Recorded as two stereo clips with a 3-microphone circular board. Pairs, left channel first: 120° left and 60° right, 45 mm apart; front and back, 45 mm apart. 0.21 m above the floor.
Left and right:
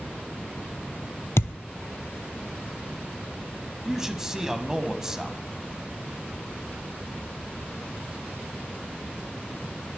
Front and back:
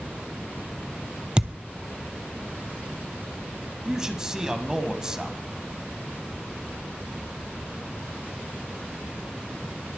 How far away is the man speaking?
About 1.2 m.